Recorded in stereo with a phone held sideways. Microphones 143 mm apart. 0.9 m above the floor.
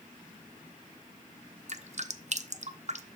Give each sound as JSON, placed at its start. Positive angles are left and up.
{"t": 1.7, "sound": "dripping", "side_deg": -55, "distance_m": 0.6}